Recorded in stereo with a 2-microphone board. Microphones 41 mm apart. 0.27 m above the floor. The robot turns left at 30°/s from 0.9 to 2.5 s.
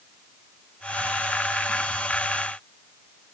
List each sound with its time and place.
Only background noise.